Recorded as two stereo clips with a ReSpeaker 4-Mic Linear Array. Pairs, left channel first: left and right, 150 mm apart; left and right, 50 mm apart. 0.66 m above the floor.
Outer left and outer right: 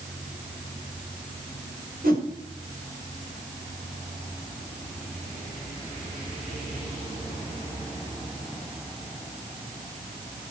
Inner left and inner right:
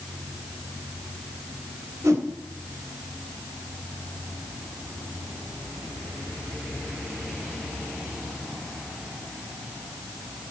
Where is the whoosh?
75° right (ahead or behind), 3 m.